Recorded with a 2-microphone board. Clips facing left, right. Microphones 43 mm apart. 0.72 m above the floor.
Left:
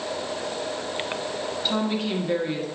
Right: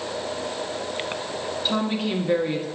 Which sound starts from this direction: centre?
A woman speaking, at 1.6 s.